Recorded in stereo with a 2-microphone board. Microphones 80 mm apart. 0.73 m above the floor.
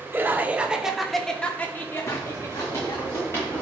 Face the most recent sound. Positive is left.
turn(degrees=30)  # may be behind; listen again after turning